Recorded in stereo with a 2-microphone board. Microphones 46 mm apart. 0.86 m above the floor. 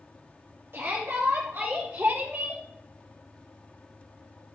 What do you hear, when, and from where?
0.7 s a shout: 65° right (ahead or behind), 1.7 m; by 2.6 s 50° right (ahead or behind), 3 m